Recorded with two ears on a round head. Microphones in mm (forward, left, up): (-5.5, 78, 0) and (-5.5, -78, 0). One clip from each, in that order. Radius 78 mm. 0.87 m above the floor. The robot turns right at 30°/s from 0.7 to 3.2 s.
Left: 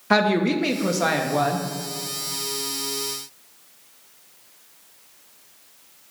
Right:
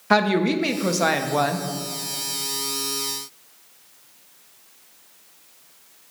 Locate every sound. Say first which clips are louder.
0.1 s a woman speaking: even; 5° right (ahead or behind), 0.6 m; by 1.7 s 30° right (ahead or behind), 0.6 m